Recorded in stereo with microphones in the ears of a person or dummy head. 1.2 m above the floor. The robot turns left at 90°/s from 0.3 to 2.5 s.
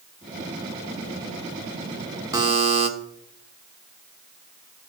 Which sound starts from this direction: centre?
A buzzer, at 2.3 s.